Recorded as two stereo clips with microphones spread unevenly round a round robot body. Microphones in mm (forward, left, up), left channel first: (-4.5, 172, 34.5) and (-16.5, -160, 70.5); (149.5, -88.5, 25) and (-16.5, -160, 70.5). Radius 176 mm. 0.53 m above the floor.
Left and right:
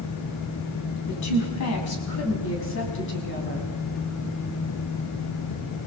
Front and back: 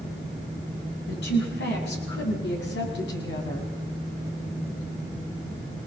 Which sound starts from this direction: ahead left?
A woman speaking, at 1.1 s.